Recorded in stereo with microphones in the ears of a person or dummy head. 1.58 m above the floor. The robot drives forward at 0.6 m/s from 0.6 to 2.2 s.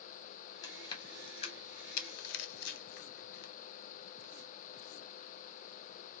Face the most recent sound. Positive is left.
turn(degrees=60)  # may be behind; listen again after turning